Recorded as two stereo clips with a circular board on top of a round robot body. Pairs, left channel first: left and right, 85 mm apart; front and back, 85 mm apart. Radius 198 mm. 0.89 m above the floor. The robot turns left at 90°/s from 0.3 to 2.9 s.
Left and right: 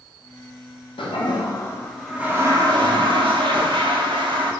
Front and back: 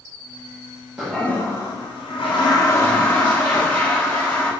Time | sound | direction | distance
1.0 | a toilet flushing | 95° left | 1.6 m